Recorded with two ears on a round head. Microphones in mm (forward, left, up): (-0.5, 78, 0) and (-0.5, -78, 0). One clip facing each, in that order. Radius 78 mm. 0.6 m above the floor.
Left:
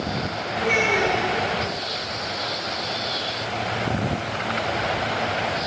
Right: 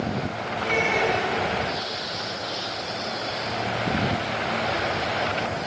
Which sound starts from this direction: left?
A child speaking, at 0.6 s.